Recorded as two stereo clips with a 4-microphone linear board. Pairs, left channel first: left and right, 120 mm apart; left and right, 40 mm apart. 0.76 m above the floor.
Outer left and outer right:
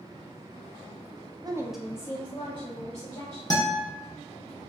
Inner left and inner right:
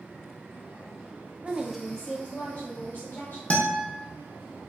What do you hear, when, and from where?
1.4 s a woman speaking: 35° right (ahead or behind), 0.6 m; by 3.4 s 55° left (ahead or behind), 2 m
3.5 s a guitar: 35° left (ahead or behind), 0.7 m